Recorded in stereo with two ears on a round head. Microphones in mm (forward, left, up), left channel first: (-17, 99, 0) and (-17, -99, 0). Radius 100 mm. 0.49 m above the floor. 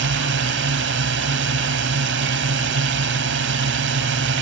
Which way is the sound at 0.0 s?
55° right (ahead or behind).